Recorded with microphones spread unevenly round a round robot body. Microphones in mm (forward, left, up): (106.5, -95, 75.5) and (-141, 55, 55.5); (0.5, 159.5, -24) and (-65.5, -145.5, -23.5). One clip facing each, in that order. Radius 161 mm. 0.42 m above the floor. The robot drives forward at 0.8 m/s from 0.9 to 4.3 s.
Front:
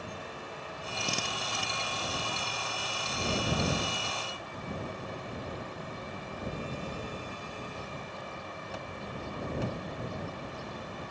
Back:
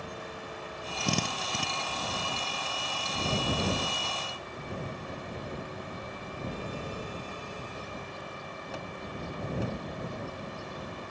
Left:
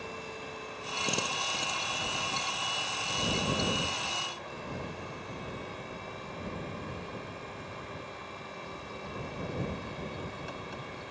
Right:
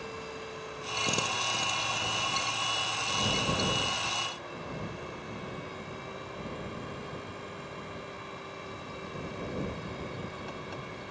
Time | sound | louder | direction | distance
1.0 | a drill | back 7 dB, right 1 dB | 170° left | ?